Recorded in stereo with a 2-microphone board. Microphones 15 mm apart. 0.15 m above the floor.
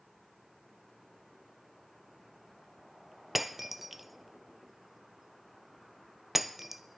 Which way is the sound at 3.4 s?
20° right (ahead or behind).